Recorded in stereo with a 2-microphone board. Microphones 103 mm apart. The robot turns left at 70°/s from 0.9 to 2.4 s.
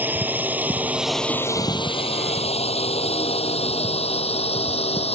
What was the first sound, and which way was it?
A drone, 15° right (ahead or behind).